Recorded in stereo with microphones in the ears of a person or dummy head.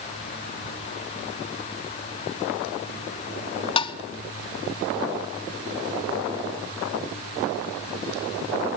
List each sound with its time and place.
3.8 s tapping: 25° left (ahead or behind), 0.8 m